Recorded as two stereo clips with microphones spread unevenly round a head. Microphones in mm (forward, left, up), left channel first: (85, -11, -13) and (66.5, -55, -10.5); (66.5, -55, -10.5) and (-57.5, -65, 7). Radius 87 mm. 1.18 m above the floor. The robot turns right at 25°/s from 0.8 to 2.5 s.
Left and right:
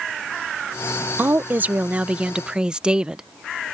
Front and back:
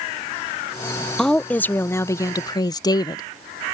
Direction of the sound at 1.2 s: 75° right.